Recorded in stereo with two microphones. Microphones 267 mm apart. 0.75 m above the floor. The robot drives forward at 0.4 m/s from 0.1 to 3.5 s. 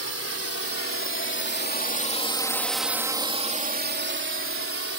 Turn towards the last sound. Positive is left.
turn(degrees=-55)  # may be behind; listen again after turning